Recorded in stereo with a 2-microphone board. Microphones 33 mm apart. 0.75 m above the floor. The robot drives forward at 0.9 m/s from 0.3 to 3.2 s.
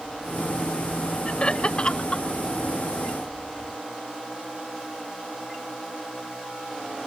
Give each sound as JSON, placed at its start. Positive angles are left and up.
{"t": 1.2, "sound": "laughter", "side_deg": 35}